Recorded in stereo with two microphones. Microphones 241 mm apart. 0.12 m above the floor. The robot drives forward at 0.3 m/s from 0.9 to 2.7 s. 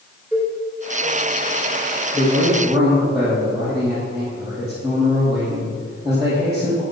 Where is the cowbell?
10° right (ahead or behind), 3 m.